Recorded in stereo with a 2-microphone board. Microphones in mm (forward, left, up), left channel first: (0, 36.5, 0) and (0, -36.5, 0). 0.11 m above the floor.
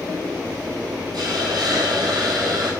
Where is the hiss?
75° right (ahead or behind), 0.8 m.